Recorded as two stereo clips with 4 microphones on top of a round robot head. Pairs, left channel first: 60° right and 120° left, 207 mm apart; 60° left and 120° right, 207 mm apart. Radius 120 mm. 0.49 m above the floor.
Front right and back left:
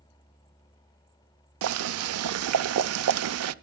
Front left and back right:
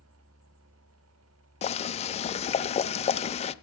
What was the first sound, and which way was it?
Boiling, 120° left.